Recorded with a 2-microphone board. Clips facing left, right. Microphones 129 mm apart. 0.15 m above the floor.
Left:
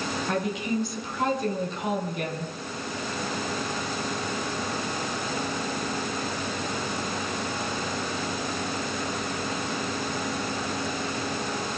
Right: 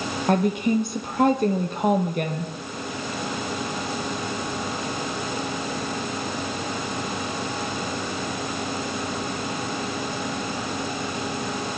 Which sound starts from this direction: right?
A woman speaking, at 0.3 s.